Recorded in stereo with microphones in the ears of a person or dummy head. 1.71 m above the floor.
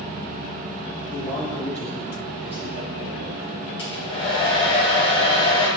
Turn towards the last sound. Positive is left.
turn(degrees=35)  # may be behind; listen again after turning